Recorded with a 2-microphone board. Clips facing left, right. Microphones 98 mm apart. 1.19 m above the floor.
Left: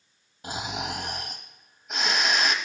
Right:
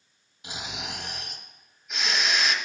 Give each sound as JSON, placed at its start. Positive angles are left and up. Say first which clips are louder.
{"t": 0.4, "sound": "snoring", "louder": "left 6 dB", "side_deg": 40, "distance_m": 1.1}